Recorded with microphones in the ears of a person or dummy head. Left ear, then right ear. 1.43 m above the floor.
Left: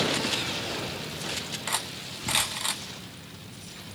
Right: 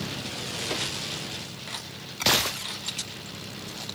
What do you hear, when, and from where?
1.7 s cutlery clinking: 20° left (ahead or behind), 0.7 m